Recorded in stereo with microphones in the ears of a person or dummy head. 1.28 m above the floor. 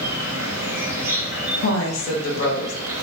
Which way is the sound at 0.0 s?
15° right (ahead or behind).